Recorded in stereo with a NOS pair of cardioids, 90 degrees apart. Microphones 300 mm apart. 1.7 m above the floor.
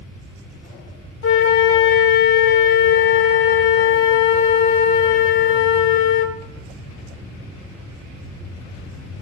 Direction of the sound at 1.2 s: 40° left.